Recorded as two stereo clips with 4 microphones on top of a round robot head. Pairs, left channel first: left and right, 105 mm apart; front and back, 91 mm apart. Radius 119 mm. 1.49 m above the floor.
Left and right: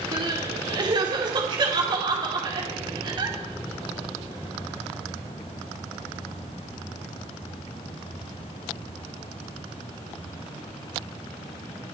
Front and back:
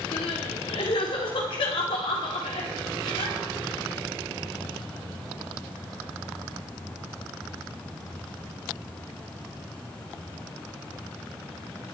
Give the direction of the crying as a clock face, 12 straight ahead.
1 o'clock.